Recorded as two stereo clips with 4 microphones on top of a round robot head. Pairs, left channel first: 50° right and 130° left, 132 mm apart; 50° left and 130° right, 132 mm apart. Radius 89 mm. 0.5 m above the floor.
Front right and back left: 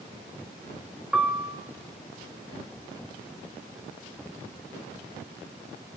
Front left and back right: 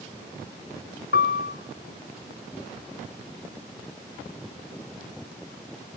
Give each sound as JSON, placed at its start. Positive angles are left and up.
{"t": 1.1, "sound": "a piano", "azimuth_deg": 45, "distance_m": 2.5}